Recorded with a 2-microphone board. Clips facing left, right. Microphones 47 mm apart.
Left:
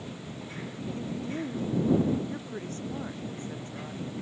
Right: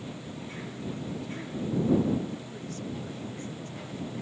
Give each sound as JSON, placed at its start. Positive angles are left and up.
{"t": 1.0, "sound": "a woman speaking", "side_deg": 45}